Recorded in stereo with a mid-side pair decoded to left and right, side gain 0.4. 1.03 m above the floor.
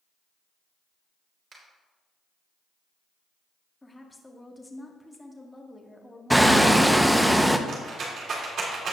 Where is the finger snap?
55° right, 3.5 m.